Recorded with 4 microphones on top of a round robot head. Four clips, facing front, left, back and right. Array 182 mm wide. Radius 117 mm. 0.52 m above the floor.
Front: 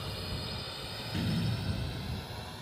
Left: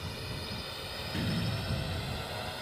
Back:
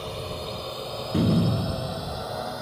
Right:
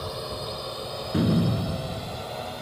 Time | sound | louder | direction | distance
0.0 | a drone | right 9 dB, back 8 dB | 130° right | ?
1.1 | a door slam | right 12 dB, back 12 dB | 135° right | ?